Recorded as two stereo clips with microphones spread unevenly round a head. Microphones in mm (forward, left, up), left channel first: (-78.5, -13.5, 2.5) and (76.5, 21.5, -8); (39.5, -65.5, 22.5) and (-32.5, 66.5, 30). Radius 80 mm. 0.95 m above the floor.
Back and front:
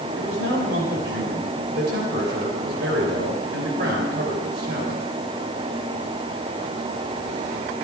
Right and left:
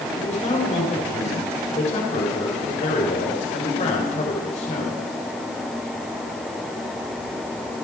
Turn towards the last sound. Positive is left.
turn(degrees=-15)